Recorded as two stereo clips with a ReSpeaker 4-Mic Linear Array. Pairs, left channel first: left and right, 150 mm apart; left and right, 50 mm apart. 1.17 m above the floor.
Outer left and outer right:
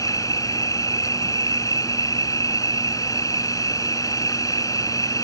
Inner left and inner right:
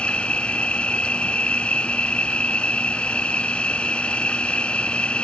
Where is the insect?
20° left (ahead or behind).